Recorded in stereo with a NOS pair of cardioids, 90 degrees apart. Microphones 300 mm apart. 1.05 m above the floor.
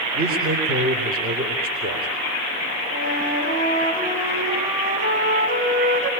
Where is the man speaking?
30° right, 3.5 m.